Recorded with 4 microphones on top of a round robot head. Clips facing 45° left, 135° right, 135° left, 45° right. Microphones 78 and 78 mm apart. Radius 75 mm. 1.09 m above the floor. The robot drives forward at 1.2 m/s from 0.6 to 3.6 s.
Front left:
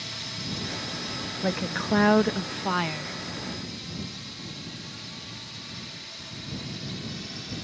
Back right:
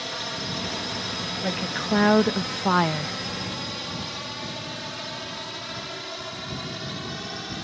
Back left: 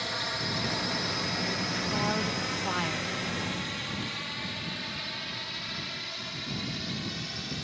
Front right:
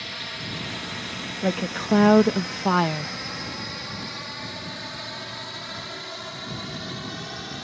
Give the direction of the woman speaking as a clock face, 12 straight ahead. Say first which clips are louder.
Front left 2 dB, front right 6 dB; 1 o'clock.